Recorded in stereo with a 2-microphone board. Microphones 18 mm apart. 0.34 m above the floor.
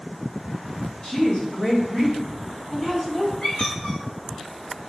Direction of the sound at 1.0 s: 40° left (ahead or behind).